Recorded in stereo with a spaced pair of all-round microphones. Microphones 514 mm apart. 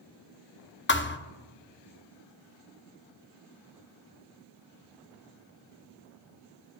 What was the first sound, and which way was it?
A thud, 25° left (ahead or behind).